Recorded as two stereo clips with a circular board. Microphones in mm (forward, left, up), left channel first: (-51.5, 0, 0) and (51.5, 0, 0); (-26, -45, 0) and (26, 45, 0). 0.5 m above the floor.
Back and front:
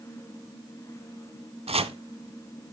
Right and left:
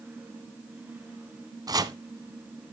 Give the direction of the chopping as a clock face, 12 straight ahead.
12 o'clock.